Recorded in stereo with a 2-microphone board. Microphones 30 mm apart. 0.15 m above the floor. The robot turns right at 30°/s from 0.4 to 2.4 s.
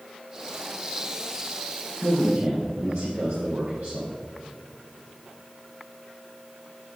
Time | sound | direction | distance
2.0 | a man speaking | 70° right (ahead or behind) | 4.5 m